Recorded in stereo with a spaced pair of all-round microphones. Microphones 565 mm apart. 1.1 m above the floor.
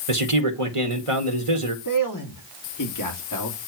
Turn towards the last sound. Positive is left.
turn(degrees=35)  # may be behind; listen again after turning